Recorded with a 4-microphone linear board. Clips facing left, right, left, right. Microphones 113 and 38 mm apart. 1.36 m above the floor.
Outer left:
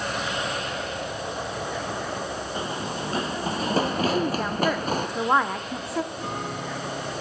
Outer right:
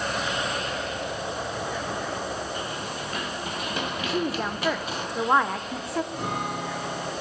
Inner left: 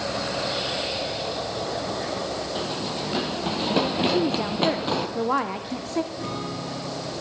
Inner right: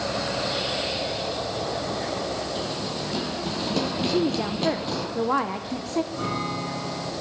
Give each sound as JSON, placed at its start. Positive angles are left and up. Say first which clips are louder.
{"t": 2.5, "sound": "running footsteps", "louder": "outer left 3 dB, inner left 1 dB", "side_deg": 20, "distance_m": 1.9}
{"t": 4.1, "sound": "a woman speaking", "louder": "outer left 2 dB, inner left 1 dB", "side_deg": 0, "distance_m": 0.7}
{"t": 6.1, "sound": "a guitar", "louder": "outer right 2 dB, inner right 3 dB", "side_deg": -75, "distance_m": 8.0}